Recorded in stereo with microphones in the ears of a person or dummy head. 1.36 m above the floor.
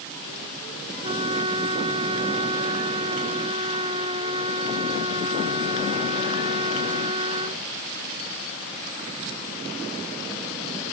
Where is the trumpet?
25° right (ahead or behind).